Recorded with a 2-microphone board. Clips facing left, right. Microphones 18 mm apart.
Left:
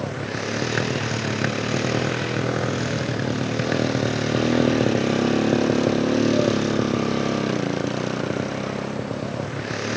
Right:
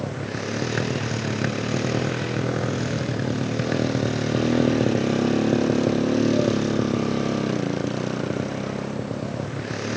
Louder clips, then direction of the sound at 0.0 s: Left 2 dB; 20° left (ahead or behind).